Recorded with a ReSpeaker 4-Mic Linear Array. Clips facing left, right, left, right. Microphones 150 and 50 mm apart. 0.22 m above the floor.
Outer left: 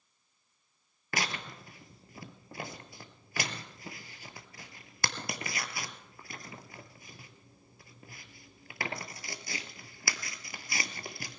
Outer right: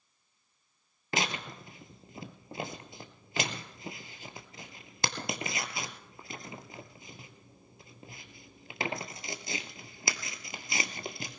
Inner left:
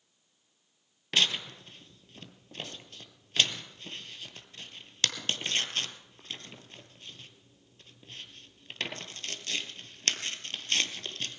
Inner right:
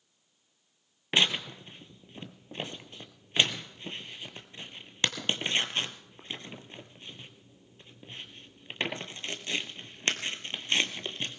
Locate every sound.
1.1 s tearing paper: 20° right (ahead or behind), 0.9 m